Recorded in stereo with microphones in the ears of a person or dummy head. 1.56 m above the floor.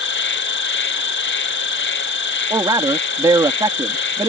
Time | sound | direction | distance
0.0 | an insect | 55° left (ahead or behind) | ?
2.5 | a man speaking | 15° right (ahead or behind) | ?